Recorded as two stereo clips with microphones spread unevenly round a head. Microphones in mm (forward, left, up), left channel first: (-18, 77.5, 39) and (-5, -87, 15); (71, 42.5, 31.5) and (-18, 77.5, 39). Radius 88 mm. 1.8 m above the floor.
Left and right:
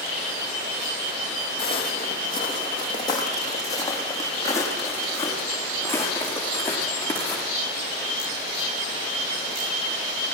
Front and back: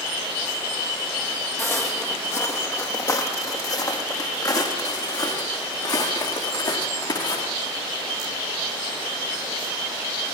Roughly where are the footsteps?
Ahead left.